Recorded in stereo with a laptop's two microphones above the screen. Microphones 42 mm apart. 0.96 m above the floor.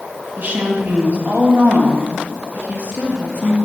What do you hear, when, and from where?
0.4 s a woman speaking: 40° right (ahead or behind), 1.4 m